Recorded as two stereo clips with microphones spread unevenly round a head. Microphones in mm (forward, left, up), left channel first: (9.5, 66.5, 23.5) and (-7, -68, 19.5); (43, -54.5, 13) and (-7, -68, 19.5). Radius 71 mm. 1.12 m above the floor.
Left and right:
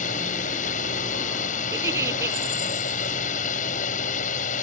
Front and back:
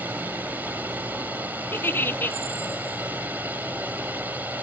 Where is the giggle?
30° right.